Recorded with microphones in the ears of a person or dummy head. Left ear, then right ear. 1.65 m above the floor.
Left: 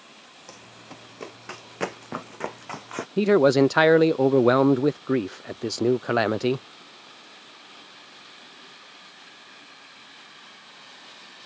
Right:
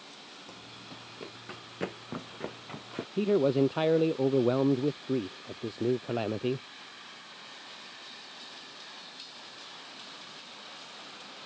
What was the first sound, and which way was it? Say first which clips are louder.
Running footsteps: left 2 dB; 30° left (ahead or behind).